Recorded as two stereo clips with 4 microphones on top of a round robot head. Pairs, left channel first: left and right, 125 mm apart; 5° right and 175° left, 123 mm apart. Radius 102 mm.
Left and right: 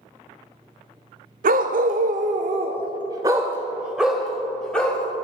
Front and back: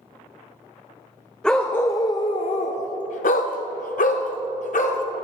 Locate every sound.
1.4 s a dog barking: 90° right, 0.8 m; by 5.0 s 10° left, 1.6 m